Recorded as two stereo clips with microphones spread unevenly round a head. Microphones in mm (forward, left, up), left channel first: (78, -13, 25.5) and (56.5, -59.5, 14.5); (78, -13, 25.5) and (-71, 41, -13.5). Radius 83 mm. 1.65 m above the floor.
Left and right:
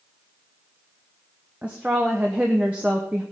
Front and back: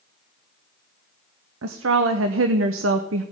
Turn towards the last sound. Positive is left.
turn(degrees=160)